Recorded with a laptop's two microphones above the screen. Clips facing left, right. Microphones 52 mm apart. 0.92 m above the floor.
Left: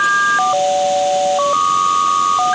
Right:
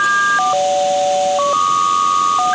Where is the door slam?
No door slam in this recording.